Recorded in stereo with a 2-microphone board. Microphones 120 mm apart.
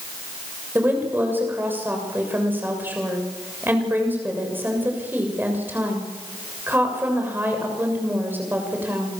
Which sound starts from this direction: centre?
A woman speaking, at 0.8 s.